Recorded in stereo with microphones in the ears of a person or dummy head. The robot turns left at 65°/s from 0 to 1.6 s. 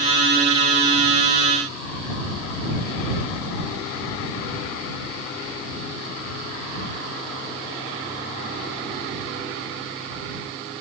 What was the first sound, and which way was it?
Only background noise.